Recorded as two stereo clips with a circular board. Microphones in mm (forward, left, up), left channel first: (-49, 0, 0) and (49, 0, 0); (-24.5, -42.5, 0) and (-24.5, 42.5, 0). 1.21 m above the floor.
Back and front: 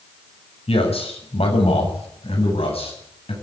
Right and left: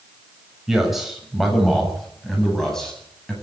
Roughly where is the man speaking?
Behind.